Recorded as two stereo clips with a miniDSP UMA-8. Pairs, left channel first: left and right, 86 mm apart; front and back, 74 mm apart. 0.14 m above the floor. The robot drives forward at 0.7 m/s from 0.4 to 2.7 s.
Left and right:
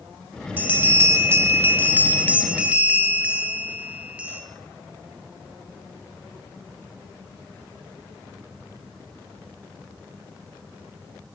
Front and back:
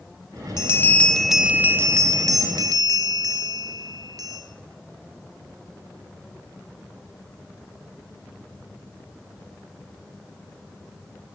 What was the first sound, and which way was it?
A bell, 30° right.